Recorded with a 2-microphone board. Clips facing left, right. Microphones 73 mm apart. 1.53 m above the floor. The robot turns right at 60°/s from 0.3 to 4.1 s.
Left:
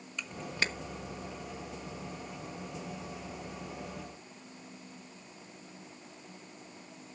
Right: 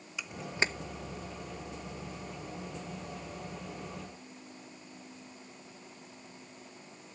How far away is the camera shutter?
About 1.2 m.